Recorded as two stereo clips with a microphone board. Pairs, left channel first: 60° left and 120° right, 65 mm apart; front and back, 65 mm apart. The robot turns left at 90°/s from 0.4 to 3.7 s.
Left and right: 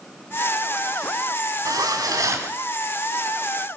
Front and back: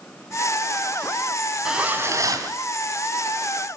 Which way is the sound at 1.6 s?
95° right.